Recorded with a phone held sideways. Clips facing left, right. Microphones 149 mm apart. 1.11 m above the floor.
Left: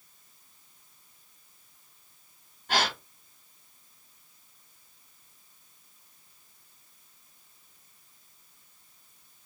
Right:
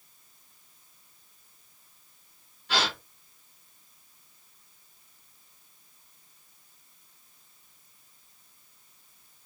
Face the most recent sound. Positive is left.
turn(degrees=50)  # may be behind; listen again after turning